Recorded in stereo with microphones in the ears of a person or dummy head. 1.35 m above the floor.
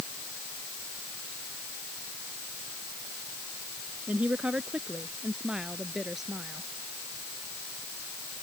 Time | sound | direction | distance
4.1 | a woman speaking | 10° right (ahead or behind) | ?